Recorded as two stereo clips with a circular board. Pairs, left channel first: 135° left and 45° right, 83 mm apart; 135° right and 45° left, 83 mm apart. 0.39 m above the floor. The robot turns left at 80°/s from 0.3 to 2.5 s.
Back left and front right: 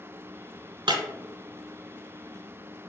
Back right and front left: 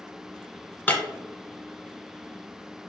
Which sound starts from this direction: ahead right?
Breaking glass, at 0.9 s.